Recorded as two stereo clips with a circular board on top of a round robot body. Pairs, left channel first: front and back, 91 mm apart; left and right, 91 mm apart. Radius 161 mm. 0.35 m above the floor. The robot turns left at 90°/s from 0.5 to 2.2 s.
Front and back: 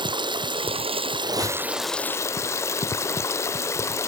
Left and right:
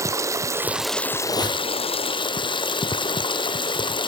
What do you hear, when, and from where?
0.0 s running water: 145° right, 0.8 m; by 4.1 s 60° left, 0.8 m
1.2 s a squeak: 150° left, 5.5 m; by 1.6 s 110° left, 5.5 m